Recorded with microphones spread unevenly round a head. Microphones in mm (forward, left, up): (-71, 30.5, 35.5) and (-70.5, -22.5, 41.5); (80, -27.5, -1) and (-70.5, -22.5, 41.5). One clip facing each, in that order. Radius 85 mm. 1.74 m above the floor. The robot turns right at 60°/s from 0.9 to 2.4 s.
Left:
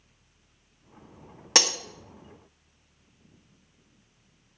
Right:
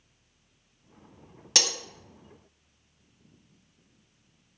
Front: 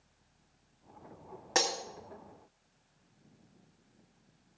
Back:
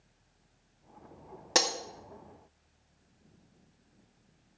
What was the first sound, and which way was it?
Breaking glass, 145° left.